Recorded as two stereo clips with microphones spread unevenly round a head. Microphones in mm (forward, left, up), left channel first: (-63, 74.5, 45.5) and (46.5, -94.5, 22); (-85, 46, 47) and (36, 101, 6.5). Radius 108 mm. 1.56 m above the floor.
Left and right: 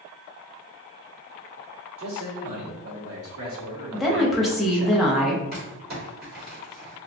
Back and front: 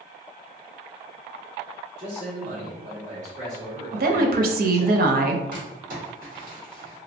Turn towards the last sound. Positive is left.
turn(degrees=-10)